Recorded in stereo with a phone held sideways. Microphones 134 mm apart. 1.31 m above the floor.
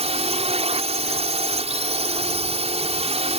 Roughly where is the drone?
Right.